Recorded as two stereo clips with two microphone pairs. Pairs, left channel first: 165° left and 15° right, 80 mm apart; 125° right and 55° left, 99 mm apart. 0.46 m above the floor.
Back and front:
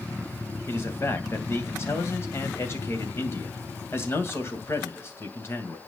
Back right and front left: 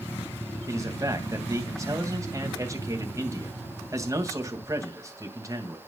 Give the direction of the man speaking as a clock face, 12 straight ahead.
8 o'clock.